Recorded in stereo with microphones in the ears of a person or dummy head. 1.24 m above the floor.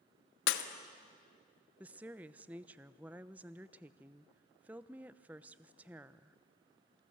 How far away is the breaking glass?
About 1.2 m.